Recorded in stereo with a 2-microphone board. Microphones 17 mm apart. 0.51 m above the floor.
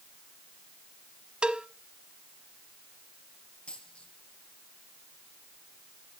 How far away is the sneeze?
I don't hear a sneeze.